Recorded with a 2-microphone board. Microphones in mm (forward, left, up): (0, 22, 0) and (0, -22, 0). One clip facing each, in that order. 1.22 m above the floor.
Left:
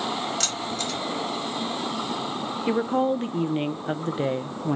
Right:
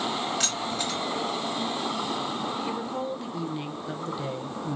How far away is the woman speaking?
About 0.5 m.